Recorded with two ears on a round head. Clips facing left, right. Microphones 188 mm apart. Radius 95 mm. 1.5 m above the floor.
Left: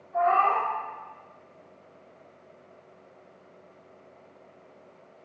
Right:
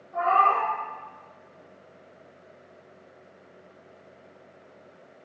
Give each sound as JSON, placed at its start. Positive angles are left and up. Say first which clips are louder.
{"t": 0.1, "sound": "a cat meowing", "louder": "left 1 dB", "side_deg": -35, "distance_m": 1.2}